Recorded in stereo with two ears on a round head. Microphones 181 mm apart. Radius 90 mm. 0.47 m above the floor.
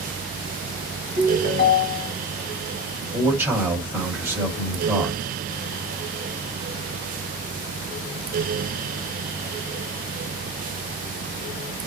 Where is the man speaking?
10° right (ahead or behind), 1.5 m.